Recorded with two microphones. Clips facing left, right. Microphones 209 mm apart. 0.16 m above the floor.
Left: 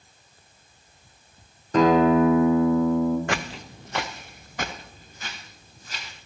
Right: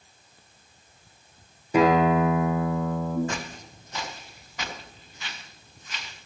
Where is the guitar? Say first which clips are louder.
Left 3 dB; 10° right (ahead or behind), 2 m.